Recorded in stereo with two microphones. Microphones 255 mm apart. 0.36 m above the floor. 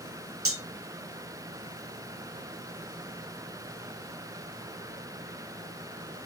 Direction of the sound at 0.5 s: 60° right (ahead or behind).